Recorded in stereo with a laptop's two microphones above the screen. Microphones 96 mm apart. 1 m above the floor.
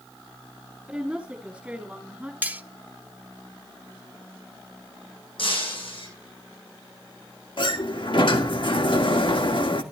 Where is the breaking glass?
65° left (ahead or behind), 8.5 m.